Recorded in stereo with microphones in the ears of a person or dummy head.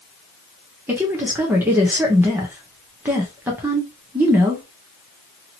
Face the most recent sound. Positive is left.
turn(degrees=-10)  # may be behind; listen again after turning